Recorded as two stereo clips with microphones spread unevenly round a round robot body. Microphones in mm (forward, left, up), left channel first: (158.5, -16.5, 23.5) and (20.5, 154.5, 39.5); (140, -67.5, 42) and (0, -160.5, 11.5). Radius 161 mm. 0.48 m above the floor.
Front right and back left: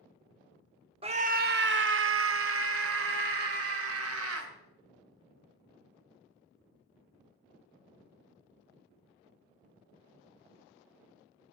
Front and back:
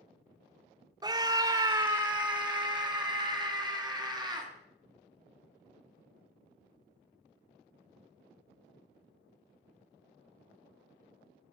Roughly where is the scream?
Behind.